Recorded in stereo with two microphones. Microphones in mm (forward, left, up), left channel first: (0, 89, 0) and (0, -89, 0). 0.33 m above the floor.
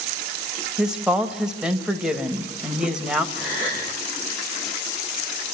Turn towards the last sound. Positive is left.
turn(degrees=-15)  # may be behind; listen again after turning